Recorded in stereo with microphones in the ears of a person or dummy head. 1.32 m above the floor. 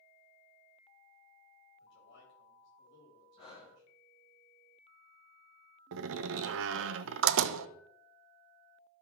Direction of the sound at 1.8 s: 60° left (ahead or behind).